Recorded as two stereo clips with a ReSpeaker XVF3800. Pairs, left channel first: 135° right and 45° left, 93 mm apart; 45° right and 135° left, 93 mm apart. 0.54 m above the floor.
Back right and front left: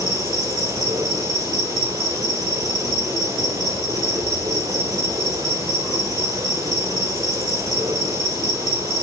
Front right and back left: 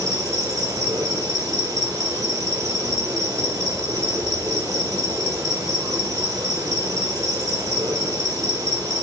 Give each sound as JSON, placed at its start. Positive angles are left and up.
{"t": 0.0, "sound": "an insect", "azimuth_deg": 95, "distance_m": 1.0}